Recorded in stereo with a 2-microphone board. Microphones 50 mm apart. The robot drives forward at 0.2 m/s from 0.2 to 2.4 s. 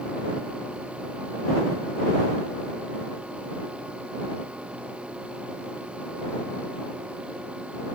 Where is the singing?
No singing in this recording.